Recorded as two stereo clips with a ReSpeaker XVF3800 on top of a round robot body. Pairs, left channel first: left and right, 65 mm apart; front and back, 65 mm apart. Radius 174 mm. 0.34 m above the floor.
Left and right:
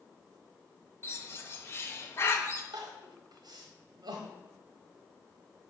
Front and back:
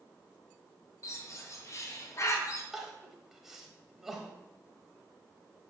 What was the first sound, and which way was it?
A bird, 35° left.